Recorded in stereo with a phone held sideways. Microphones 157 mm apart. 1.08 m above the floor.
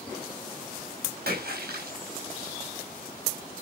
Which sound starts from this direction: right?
A splash, at 1.3 s.